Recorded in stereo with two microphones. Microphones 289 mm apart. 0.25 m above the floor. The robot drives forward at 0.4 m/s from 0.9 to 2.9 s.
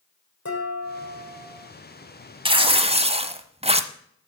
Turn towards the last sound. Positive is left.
turn(degrees=-20)  # may be behind; listen again after turning